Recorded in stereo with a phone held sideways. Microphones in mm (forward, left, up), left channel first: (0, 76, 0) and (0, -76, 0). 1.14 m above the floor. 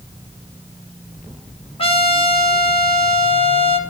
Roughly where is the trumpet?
Left.